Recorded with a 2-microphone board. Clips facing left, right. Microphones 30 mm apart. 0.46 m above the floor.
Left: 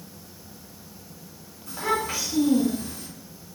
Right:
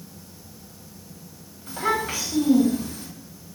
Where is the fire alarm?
No fire alarm in this recording.